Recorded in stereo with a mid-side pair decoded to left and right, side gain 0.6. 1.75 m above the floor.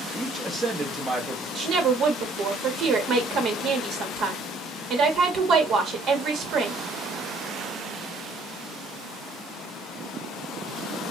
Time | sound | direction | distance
0.1 | a man speaking | 20° right | 0.9 m
1.6 | a woman speaking | 55° right | 1.1 m